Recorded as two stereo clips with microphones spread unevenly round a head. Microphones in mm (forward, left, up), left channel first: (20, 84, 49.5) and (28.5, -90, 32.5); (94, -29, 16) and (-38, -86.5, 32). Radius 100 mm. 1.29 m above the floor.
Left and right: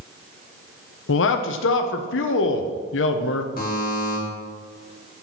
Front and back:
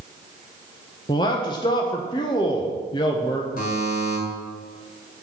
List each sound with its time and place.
1.1 s a man speaking: 90° left, 0.8 m
3.6 s a buzzer: 55° left, 2.5 m